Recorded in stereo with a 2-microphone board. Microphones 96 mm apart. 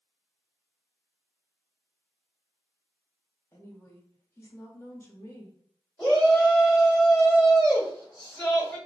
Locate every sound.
3.5 s a woman speaking: 30° left (ahead or behind), 1.0 m
6.0 s a shout: 5° left (ahead or behind), 1.7 m